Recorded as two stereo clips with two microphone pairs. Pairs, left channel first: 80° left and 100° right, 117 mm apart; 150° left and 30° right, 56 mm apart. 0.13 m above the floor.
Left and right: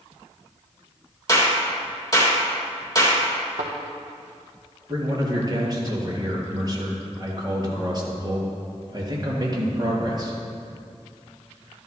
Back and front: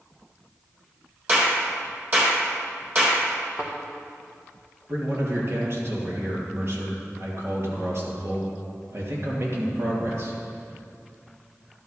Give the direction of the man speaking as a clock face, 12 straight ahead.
2 o'clock.